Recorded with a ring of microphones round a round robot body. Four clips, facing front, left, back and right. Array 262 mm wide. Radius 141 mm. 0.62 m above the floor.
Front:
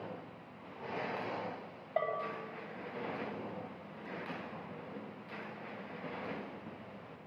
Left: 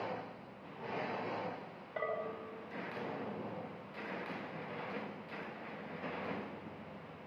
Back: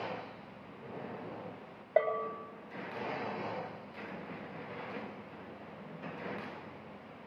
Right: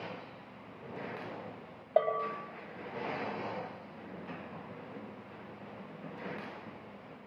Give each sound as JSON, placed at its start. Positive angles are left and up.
{"t": 2.0, "sound": "a bell", "azimuth_deg": -115, "distance_m": 8.5}